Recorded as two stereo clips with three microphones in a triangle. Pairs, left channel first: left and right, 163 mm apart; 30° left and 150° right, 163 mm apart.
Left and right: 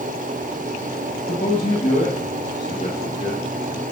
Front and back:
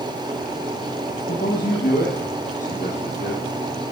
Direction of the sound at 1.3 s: 45° left.